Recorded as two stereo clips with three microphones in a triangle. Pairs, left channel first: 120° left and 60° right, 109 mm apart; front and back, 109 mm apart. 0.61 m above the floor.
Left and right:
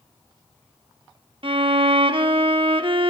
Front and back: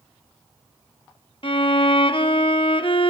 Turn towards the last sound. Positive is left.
turn(degrees=-30)